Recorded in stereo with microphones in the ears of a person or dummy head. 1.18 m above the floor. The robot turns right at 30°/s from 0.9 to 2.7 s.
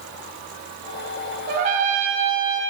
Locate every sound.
1.5 s a trumpet: 50° right, 2.5 m; by 2.6 s 15° right, 2.5 m